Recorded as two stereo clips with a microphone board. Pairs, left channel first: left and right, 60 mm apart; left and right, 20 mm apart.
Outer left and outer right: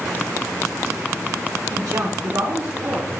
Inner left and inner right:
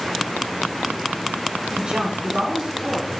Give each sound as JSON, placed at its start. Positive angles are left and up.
{"t": 1.7, "sound": "a woman speaking", "side_deg": -80, "distance_m": 4.0}